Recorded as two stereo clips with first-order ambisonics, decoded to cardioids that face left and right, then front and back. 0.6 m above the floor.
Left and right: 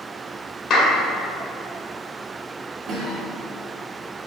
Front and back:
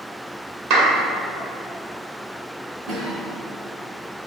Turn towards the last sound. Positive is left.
turn(degrees=-135)